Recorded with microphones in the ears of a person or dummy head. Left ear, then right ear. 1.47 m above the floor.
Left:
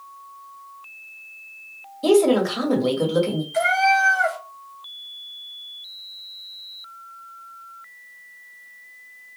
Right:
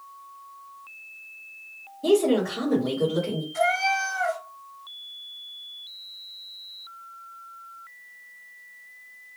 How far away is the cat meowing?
About 1.4 m.